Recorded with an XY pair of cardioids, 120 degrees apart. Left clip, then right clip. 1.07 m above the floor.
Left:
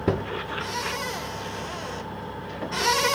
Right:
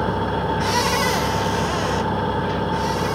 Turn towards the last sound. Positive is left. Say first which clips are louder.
# right 6 dB
turn(degrees=-65)